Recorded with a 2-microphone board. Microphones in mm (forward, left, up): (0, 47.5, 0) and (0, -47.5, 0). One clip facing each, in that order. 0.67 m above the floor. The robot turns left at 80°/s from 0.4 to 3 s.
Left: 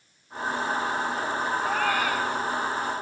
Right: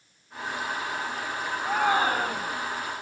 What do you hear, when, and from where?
1.6 s a shout: straight ahead; by 2.6 s 75° right